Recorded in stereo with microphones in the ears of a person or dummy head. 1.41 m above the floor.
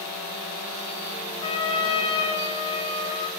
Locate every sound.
1.4 s a trumpet: 35° left (ahead or behind), 3 m